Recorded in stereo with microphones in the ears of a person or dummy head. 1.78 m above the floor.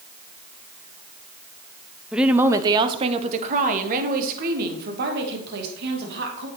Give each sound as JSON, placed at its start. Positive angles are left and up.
{"t": 2.1, "sound": "a woman speaking", "side_deg": 0, "distance_m": 0.8}